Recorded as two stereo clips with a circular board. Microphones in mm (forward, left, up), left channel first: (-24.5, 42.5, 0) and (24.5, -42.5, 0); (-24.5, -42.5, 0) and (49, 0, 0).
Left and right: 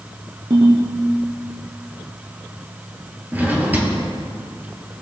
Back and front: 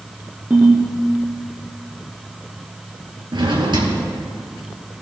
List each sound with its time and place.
0.5 s a ringtone: 40° right, 1.7 m
3.3 s a drawer: 10° left, 2 m